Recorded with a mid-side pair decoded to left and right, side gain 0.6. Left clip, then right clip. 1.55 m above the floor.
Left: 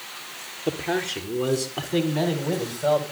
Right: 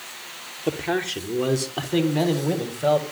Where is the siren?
No siren in this recording.